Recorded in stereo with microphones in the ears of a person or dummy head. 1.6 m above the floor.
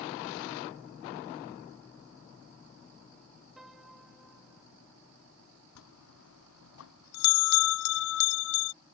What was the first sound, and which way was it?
A piano, 5° right (ahead or behind).